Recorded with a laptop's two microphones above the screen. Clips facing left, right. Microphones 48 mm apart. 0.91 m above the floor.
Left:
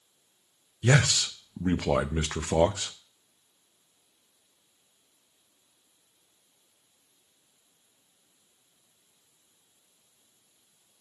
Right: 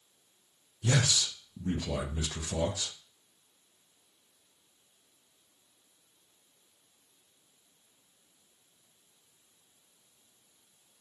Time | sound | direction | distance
0.8 | a man speaking | 50° left (ahead or behind) | 0.6 m